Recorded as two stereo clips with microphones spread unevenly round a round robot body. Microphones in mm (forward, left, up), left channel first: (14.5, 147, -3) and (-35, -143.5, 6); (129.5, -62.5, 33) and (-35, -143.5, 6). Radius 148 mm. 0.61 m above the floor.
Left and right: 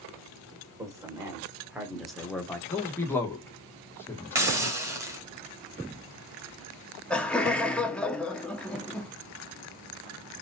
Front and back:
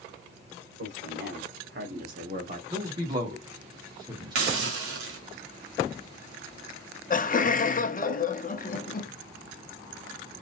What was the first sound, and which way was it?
A man speaking, straight behind.